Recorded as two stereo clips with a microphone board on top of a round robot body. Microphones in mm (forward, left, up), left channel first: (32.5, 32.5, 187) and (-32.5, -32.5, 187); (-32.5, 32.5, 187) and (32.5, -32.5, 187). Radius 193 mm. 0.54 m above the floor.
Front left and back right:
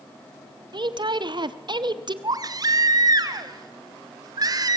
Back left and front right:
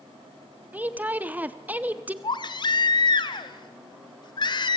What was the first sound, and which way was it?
A woman speaking, 115° right.